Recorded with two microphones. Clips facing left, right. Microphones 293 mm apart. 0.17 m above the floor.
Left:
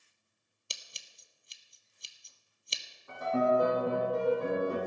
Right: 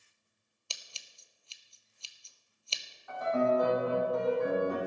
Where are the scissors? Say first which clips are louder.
Left 1 dB; 20° left (ahead or behind), 0.8 m.